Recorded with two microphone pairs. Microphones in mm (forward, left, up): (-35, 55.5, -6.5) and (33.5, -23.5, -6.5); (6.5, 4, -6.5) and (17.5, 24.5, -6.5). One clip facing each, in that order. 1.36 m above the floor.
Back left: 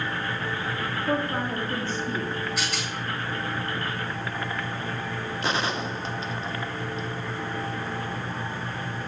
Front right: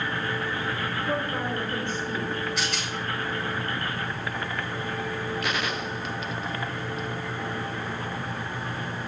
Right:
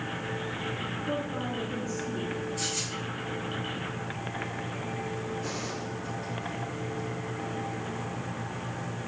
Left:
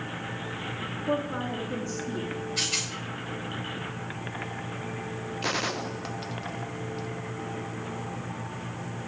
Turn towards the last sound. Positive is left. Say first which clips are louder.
# back left 2 dB, left 5 dB
turn(degrees=70)